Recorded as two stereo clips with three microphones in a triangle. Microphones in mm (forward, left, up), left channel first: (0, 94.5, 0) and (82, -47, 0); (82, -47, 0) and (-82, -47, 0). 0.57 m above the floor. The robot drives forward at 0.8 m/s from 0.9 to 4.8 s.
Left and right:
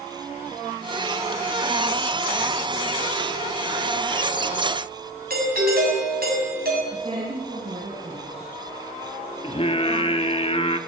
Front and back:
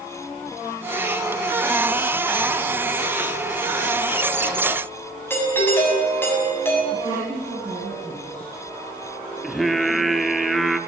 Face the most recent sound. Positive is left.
turn(degrees=90)